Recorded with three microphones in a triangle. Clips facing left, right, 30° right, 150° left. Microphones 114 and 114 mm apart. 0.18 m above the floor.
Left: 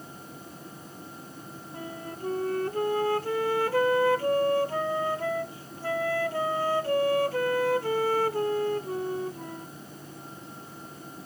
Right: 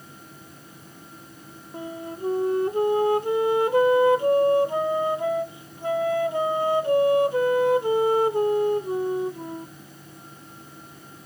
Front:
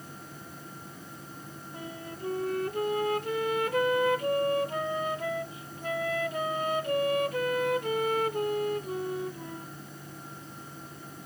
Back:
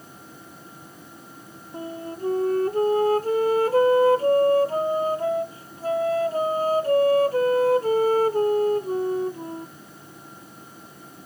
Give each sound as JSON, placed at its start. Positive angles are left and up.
{"t": 1.7, "sound": "a flute", "azimuth_deg": -160}